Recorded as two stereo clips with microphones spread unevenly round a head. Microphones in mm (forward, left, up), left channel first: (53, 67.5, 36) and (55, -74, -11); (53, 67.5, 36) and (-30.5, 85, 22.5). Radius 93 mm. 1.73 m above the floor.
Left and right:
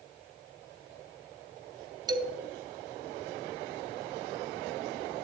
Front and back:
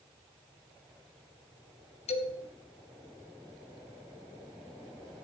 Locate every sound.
2.1 s a man speaking: 25° right, 2.5 m